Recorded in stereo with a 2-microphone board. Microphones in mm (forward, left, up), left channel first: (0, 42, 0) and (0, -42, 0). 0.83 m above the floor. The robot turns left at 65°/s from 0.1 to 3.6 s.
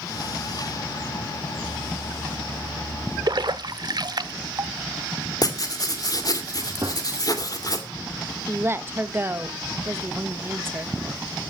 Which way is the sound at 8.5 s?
30° right (ahead or behind).